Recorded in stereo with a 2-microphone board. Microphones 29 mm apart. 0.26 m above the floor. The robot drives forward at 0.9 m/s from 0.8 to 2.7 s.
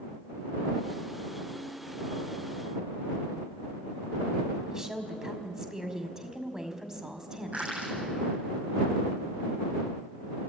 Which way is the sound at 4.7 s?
20° right (ahead or behind).